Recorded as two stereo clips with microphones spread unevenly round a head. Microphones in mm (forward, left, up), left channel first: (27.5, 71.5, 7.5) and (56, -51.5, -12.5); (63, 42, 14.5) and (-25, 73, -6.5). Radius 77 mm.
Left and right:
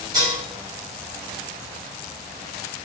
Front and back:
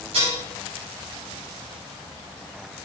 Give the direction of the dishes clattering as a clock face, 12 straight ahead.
5 o'clock.